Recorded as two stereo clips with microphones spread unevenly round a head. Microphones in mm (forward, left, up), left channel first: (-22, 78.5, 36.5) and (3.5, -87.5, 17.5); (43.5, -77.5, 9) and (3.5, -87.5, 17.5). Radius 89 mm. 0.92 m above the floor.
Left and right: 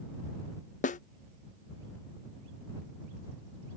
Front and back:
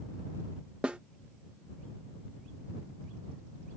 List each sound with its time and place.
0.8 s a snare drum: 120° left